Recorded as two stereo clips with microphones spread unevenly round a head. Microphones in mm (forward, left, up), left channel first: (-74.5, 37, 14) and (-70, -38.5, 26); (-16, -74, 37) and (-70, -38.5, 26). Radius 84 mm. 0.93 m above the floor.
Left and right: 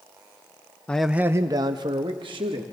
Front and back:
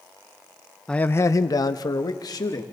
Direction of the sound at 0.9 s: 55° left.